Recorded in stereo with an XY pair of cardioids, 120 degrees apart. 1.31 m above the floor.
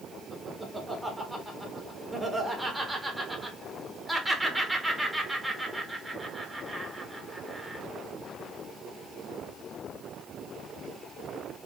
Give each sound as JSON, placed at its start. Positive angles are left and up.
{"t": 0.3, "sound": "laughter", "azimuth_deg": -10, "distance_m": 1.3}